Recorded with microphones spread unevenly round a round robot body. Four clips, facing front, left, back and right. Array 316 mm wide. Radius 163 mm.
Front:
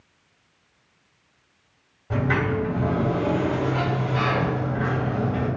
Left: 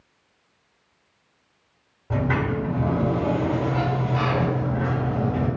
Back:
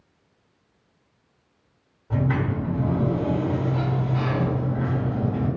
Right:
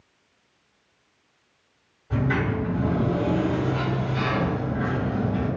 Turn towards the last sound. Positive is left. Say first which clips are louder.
# left 1 dB, front 2 dB
turn(degrees=70)